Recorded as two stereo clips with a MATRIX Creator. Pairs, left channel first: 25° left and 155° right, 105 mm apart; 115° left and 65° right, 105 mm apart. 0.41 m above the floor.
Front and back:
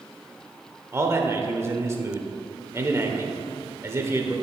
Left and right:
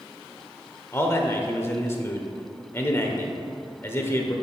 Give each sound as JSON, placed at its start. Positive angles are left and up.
{"t": 0.9, "sound": "a man speaking", "azimuth_deg": 160, "distance_m": 1.0}